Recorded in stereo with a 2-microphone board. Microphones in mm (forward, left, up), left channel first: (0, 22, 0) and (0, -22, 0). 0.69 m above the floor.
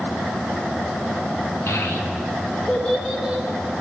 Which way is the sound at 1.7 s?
85° left.